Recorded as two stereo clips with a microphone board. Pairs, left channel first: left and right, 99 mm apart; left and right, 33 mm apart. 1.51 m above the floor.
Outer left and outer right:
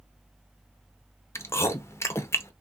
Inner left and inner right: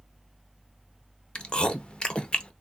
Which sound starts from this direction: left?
Chewing, at 1.4 s.